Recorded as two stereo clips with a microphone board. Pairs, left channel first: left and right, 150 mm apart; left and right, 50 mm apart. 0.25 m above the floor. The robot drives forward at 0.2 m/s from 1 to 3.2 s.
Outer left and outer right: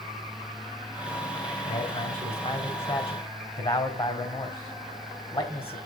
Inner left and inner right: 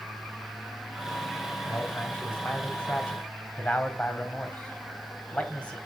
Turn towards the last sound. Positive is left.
turn(degrees=35)  # may be behind; listen again after turning